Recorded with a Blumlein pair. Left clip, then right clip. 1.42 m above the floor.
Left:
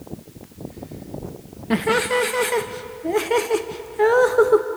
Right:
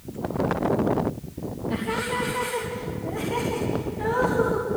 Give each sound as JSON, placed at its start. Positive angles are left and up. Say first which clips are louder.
{"t": 1.7, "sound": "laughter", "louder": "left 8 dB", "azimuth_deg": 55, "distance_m": 1.1}